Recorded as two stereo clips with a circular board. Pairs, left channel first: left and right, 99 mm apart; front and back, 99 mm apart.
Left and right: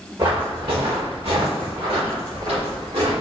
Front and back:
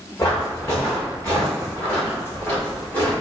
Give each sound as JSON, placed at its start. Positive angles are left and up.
{"t": 0.2, "sound": "footsteps", "azimuth_deg": -55, "distance_m": 1.9}